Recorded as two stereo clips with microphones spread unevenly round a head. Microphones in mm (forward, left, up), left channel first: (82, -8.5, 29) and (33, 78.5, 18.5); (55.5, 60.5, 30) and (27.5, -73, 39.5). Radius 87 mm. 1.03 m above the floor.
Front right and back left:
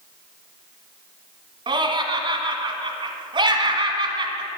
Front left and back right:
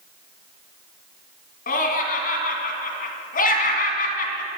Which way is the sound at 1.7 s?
85° left.